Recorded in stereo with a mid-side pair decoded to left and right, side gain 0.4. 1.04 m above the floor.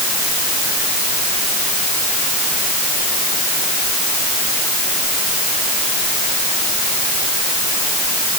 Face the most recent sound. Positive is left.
No sound to turn to.